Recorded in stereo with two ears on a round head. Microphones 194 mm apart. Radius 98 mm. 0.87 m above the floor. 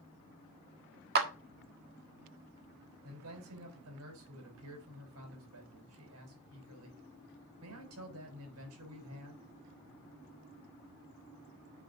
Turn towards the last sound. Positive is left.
turn(degrees=-80)